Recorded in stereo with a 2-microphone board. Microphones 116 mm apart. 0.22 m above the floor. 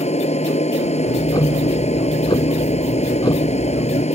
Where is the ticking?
40° left (ahead or behind).